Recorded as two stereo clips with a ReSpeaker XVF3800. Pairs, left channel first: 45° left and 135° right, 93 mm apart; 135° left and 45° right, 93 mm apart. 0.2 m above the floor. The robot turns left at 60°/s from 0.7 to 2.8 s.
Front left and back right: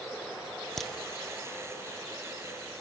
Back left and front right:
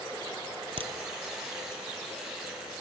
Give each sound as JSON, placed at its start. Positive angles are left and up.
{"t": 0.8, "sound": "a crack", "azimuth_deg": -40, "distance_m": 1.1}